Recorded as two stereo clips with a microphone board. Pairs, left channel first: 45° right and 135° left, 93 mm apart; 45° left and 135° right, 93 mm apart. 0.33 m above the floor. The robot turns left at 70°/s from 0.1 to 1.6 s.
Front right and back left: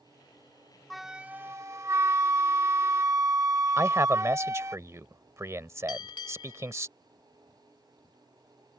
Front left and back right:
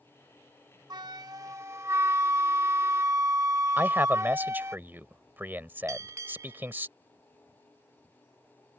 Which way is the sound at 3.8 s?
170° left.